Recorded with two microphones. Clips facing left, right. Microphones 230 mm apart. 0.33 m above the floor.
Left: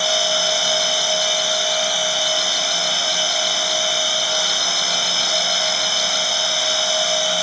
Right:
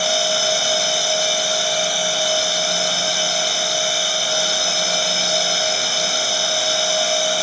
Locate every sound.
0.0 s an insect: 55° right (ahead or behind), 6 m